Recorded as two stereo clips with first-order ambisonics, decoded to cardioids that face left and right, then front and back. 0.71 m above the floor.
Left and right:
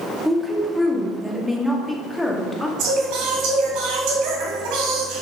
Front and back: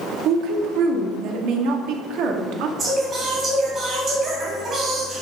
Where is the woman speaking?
Straight behind, 1.3 m.